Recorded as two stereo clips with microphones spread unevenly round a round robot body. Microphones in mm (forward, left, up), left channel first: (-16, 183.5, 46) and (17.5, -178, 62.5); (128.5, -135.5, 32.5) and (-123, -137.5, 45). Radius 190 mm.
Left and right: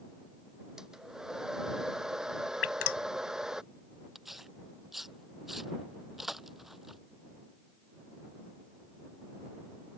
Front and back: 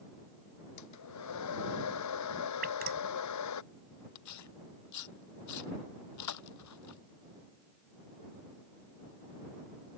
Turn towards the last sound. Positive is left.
turn(degrees=5)